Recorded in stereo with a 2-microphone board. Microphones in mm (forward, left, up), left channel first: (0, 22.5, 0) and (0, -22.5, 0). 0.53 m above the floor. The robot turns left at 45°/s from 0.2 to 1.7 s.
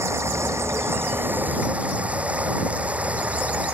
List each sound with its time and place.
0.0 s running water: 80° right; by 3.8 s 150° right